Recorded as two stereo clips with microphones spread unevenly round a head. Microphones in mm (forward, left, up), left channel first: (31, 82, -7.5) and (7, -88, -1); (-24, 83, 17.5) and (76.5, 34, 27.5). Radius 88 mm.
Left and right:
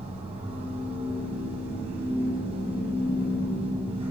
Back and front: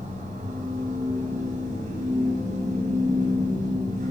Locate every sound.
0.0 s a machine running: 40° right, 10 m